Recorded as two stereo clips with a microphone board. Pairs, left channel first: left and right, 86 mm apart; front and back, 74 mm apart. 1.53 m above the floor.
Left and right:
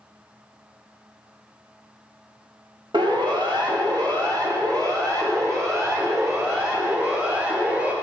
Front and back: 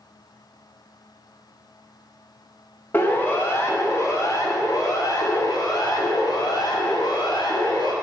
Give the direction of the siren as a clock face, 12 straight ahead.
2 o'clock.